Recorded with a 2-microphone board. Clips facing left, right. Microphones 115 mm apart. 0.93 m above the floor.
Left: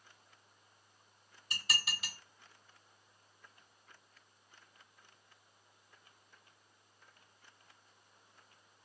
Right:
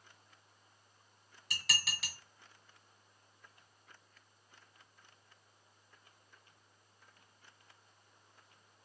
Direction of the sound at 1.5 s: 80° right.